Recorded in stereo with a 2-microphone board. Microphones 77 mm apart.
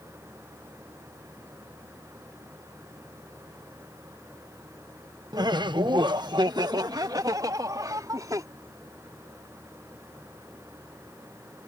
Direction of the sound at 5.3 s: 60° right (ahead or behind).